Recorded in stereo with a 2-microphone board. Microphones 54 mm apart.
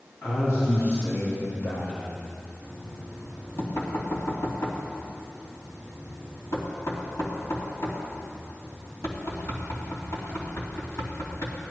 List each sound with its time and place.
0.2 s a man speaking: 65° left (ahead or behind), 2.5 m; by 2.3 s 30° left (ahead or behind), 1.3 m
2.6 s knocking: 60° left (ahead or behind), 2.5 m